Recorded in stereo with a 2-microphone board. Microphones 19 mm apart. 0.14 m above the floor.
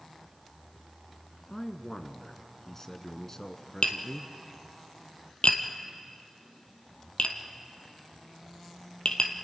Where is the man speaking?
25° left (ahead or behind), 1.2 m.